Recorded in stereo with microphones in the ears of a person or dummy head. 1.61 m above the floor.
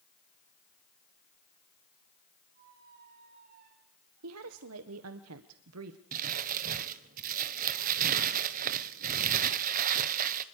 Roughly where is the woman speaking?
Right.